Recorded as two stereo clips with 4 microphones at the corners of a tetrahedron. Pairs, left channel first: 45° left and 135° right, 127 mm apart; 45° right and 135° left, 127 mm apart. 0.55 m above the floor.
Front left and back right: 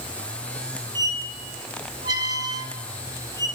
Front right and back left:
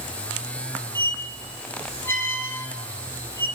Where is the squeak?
105° right, 0.6 m.